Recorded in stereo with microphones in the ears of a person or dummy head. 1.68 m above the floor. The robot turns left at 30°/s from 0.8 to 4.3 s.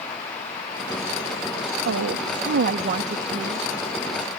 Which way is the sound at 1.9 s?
105° right.